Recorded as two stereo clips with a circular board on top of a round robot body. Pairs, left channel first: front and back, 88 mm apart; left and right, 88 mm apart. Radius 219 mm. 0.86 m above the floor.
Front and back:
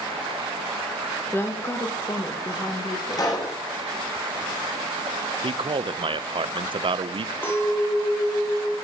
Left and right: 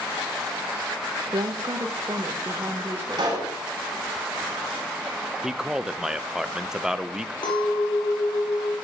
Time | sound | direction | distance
1.3 | a woman speaking | 65° right | 1.1 m
3.1 | a pop | 50° right | 2.5 m
5.4 | a man speaking | 175° right | 0.7 m
7.4 | a clink | 65° left | 2 m